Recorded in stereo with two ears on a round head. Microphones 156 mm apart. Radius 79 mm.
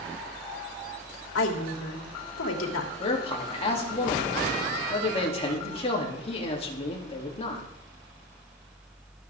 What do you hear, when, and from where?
1.4 s a woman speaking: 85° left, 3 m
3.0 s a man speaking: 35° left (ahead or behind), 3 m